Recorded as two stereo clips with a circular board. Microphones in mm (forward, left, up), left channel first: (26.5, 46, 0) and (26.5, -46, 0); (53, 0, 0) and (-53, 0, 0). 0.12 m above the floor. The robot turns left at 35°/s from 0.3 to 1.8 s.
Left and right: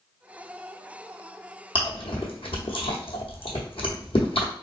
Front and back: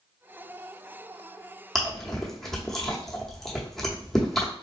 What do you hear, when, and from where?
1.8 s chewing: 90° left, 0.9 m; by 4.5 s 85° left, 0.9 m